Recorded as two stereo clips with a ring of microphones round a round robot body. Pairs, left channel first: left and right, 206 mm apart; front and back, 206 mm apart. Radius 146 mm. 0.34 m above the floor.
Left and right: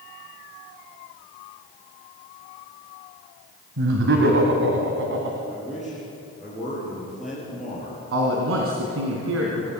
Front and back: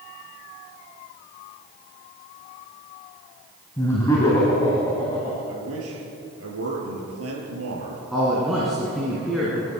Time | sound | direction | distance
3.8 | laughter | 80° right | 2 m
5.5 | a man speaking | straight behind | 6 m
8.1 | a man speaking | 90° right | 3 m